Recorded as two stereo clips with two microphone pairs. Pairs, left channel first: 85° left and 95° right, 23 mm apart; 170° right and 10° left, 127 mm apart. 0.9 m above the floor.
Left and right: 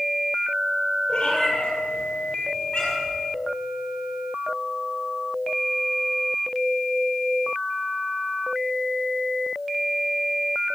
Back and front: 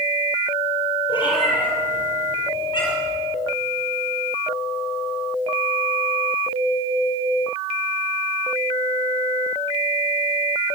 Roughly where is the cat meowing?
Behind left.